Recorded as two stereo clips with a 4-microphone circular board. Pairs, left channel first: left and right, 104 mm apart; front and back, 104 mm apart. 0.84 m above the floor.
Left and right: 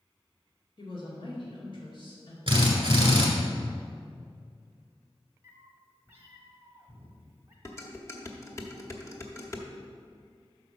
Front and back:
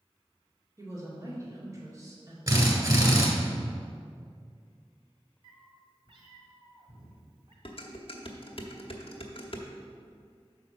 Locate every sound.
0.8 s a woman speaking: 125° left, 2 m
2.5 s a drill: 130° right, 1.6 m
5.4 s a cat meowing: 155° right, 1.2 m
7.7 s dishes clattering: 30° left, 1.0 m